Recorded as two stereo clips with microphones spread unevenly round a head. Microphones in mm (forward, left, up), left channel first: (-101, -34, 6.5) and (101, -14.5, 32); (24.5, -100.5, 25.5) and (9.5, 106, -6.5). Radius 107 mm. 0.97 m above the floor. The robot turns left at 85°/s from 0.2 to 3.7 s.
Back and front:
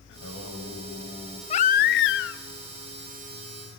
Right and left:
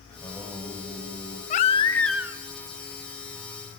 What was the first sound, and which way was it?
Singing, 150° right.